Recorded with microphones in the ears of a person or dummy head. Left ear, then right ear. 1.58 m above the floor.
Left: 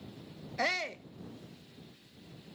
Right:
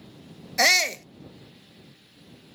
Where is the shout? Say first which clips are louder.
Right 13 dB; 75° right (ahead or behind).